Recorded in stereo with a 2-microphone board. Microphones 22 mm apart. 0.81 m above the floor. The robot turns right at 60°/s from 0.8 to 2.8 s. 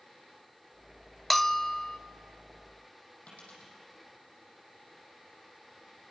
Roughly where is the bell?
Ahead.